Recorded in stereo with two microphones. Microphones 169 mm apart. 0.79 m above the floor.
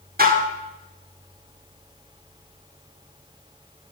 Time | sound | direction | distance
0.2 | dishes clattering | 70° right (ahead or behind) | 1.5 m